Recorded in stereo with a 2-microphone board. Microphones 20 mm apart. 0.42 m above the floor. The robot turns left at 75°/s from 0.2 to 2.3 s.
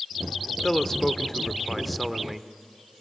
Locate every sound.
0.6 s a man speaking: 20° left (ahead or behind), 0.9 m; by 2.5 s 10° right (ahead or behind), 0.9 m